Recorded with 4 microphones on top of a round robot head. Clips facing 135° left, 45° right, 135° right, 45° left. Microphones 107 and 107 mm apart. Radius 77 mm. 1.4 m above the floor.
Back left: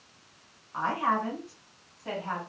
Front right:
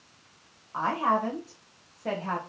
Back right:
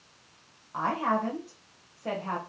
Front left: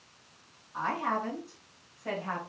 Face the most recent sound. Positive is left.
turn(degrees=-70)